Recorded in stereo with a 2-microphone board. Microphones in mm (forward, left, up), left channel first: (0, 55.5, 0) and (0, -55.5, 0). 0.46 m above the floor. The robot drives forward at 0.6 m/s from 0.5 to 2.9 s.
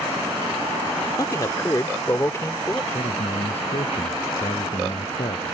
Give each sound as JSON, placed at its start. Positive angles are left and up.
{"t": 1.2, "sound": "a man speaking", "side_deg": 30}
{"t": 2.9, "sound": "a man speaking", "side_deg": 75}